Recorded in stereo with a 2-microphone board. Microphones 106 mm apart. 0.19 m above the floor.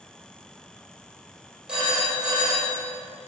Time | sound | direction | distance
1.7 | a phone ringing | 10° right (ahead or behind) | 4.5 m